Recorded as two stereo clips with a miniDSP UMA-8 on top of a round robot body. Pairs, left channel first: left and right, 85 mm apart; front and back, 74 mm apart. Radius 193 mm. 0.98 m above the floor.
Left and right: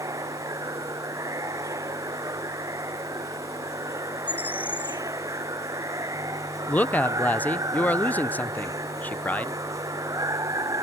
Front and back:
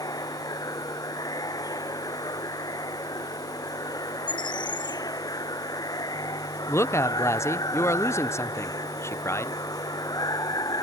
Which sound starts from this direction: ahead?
A bird, at 4.3 s.